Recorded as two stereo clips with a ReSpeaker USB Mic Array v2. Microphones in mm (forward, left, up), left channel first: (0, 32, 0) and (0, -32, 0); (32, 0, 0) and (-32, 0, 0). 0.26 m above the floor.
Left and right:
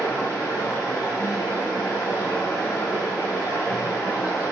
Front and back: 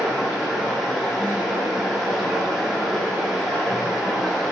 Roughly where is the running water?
Left.